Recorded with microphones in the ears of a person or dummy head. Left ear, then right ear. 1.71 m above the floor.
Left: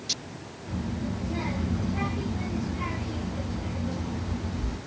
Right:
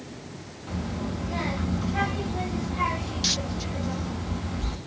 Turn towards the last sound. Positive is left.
turn(degrees=-50)  # may be behind; listen again after turning